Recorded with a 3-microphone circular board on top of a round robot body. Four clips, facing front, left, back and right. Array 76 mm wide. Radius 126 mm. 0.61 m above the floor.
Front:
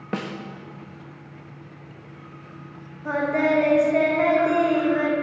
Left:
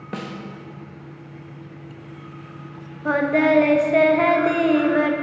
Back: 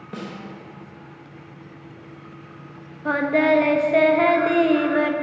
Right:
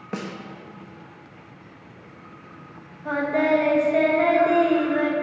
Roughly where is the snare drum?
Ahead.